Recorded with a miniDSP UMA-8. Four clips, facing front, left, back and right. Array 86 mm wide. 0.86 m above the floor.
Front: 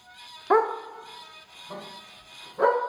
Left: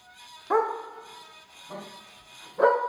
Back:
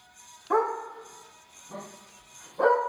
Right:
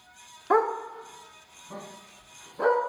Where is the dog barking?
30° right, 0.5 m; by 2.8 s 45° left, 3 m.